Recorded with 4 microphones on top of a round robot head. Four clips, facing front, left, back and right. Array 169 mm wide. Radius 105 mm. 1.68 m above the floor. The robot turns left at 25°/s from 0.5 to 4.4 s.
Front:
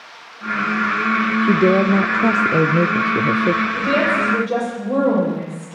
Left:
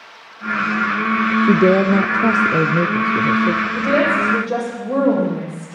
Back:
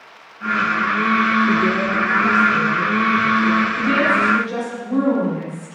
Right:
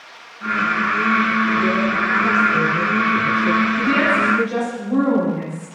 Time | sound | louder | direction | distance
1.4 | a woman speaking | left 5 dB, front 3 dB | 65° left | 0.6 m
3.8 | a woman speaking | left 1 dB, back 1 dB | 65° left | 8.5 m